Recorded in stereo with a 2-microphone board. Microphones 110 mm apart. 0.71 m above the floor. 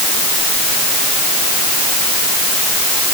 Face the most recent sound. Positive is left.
No sound to turn to.